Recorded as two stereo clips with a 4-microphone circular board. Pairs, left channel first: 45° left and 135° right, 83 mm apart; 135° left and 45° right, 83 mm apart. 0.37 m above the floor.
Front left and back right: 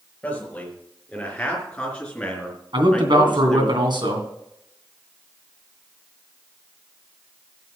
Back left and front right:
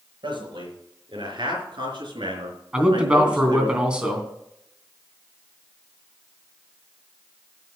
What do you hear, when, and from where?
0.2 s a man speaking: 30° right, 5 m; by 3.7 s 35° right, 3.5 m
2.7 s a man speaking: 125° right, 3 m